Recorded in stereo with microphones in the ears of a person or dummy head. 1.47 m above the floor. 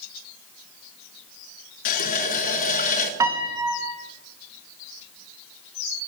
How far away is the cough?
No cough in this recording.